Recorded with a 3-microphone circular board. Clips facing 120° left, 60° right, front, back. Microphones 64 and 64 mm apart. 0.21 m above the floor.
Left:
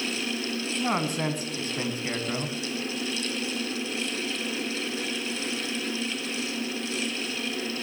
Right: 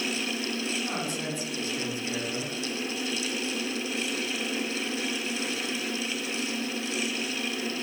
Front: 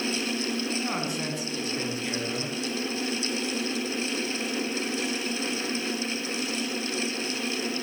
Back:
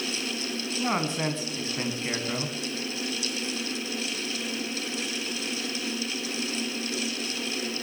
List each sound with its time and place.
0.8 s a man speaking: 130° left, 2 m